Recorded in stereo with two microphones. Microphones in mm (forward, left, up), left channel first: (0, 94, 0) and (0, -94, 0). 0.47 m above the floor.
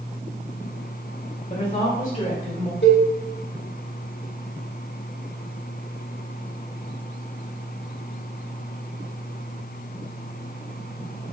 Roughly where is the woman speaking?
Left.